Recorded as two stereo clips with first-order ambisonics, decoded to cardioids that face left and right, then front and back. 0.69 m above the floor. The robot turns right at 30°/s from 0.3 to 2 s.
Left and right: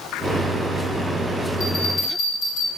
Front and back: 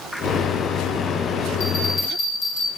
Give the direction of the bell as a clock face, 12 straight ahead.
11 o'clock.